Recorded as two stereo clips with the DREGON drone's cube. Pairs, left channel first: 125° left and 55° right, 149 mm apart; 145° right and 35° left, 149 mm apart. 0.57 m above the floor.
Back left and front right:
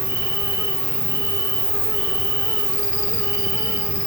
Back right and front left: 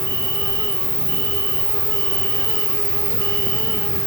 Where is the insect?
85° right, 1.9 m.